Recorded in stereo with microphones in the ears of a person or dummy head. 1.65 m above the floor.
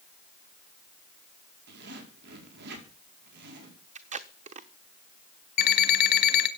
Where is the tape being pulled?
35° right (ahead or behind), 1.0 m.